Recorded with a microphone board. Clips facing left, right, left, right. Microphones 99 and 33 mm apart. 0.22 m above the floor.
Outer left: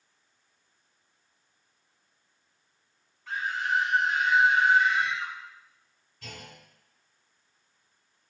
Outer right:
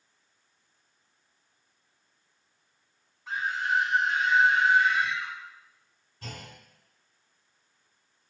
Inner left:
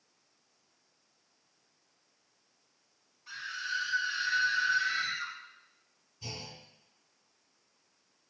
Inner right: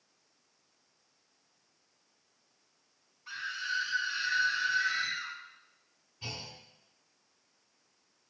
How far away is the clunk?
About 1.7 m.